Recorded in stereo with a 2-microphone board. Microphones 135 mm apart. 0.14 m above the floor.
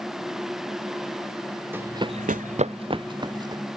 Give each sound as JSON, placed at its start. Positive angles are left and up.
{"t": 1.7, "sound": "running footsteps", "side_deg": -15}